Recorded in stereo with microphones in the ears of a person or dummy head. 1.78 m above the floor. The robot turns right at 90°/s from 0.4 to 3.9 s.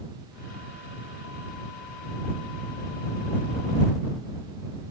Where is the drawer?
No drawer in this recording.